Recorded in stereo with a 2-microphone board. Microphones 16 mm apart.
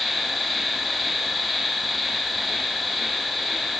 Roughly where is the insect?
Centre.